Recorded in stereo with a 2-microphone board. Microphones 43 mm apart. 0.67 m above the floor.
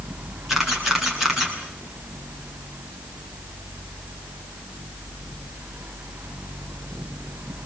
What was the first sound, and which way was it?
A camera shutter, 5° right (ahead or behind).